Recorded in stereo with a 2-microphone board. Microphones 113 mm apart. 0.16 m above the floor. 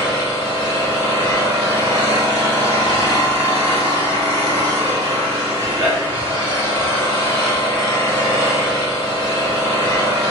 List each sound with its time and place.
0.0 s an engine running: 45° right (ahead or behind), 1.2 m